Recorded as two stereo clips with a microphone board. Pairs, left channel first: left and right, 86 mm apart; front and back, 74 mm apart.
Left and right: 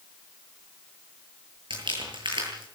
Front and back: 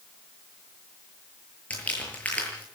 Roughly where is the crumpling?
Right.